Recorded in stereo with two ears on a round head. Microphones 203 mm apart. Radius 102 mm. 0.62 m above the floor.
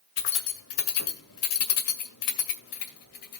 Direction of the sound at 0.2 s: 60° left (ahead or behind).